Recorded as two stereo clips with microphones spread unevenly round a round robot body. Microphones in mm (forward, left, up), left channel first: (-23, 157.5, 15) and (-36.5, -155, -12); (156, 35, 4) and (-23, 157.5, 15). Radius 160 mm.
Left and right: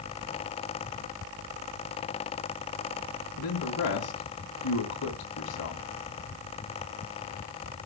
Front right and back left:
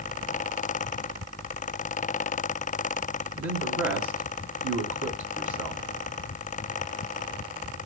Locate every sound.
3.4 s a man speaking: 130° left, 2.5 m